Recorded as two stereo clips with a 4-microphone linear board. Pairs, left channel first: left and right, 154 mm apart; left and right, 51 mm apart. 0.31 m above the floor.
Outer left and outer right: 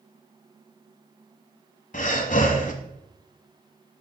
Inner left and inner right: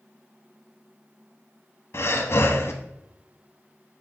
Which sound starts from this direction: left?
Breathing, at 1.9 s.